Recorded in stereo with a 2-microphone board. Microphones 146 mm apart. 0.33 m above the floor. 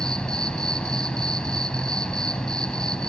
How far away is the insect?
About 0.9 m.